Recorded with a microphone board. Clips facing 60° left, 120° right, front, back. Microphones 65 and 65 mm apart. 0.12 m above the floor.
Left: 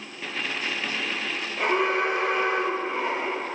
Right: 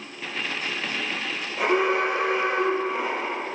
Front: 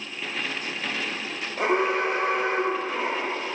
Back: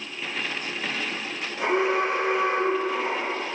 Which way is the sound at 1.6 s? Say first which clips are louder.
Right 2 dB, even; 35° right.